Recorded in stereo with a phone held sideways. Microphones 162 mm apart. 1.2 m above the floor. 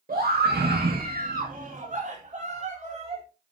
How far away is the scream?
About 1.5 m.